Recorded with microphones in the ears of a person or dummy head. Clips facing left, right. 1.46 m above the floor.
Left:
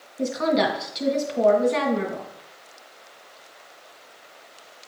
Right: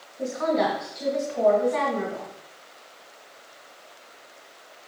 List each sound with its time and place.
0.2 s a woman speaking: 40° left (ahead or behind), 2 m